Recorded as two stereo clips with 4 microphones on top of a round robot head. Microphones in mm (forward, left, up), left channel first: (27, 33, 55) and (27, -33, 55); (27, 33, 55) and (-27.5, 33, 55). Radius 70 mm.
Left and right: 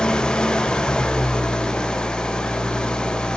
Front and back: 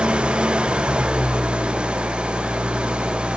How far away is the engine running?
About 0.7 m.